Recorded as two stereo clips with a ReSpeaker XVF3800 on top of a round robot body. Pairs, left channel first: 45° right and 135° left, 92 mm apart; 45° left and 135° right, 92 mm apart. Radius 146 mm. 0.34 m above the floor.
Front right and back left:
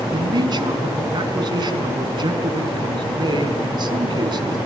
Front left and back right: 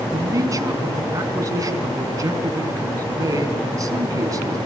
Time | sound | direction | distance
0.1 | a man speaking | 175° left | 5 m